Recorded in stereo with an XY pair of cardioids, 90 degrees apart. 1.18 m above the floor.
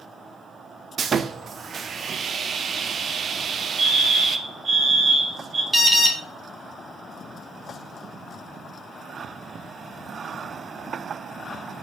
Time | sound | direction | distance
1.0 | sawing | 55° right | 0.5 m
3.8 | a fire alarm | 45° right | 3.5 m
5.7 | an alarm | 20° right | 1.4 m